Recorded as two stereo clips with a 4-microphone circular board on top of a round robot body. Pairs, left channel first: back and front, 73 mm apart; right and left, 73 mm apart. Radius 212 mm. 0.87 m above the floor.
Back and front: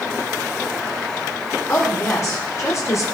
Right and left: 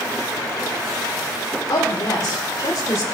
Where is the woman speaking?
130° right, 5 m; by 3.0 s 135° right, 4 m.